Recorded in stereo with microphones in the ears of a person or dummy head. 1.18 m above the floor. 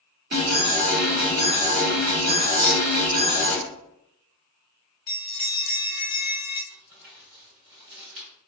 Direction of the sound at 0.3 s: 50° right (ahead or behind).